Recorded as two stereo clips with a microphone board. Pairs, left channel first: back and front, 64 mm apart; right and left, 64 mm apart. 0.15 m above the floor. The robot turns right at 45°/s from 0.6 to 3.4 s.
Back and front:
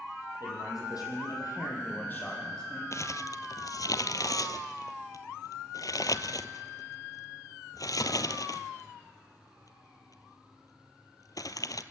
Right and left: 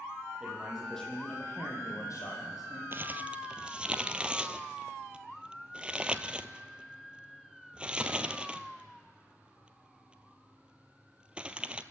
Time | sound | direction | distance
0.4 | a man speaking | 170° left | 6.5 m
2.9 | crumpling | 140° left | 0.8 m